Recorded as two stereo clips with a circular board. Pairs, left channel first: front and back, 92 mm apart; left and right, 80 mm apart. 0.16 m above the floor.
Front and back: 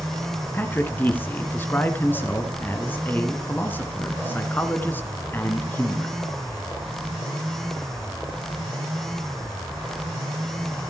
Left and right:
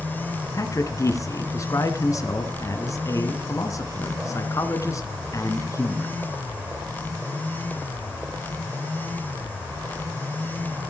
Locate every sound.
0.5 s a man speaking: 60° left, 2 m